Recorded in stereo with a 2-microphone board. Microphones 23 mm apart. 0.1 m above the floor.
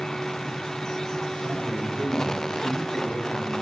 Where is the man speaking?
65° right (ahead or behind), 7 m; by 3.6 s 75° right (ahead or behind), 7 m.